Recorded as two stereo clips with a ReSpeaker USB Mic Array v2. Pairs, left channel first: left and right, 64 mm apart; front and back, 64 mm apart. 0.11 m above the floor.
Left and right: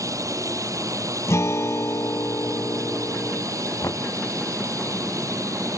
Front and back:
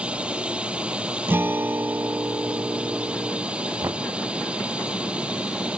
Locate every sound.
0.0 s a drone: 110° right
1.3 s a guitar: 125° left
3.8 s knocking: 135° left